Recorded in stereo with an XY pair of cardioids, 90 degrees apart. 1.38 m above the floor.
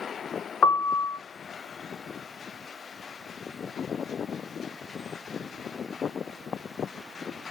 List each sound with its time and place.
0.6 s a piano: 50° left, 1.5 m